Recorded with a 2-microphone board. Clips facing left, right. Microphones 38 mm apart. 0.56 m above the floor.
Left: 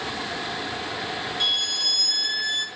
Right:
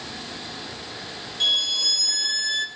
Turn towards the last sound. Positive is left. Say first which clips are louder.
# right 3 dB
turn(degrees=10)  # may be behind; listen again after turning